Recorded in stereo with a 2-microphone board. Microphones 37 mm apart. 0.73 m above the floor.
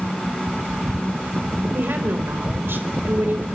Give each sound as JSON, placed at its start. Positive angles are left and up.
{"t": 1.7, "sound": "a woman speaking", "side_deg": -75, "distance_m": 3.5}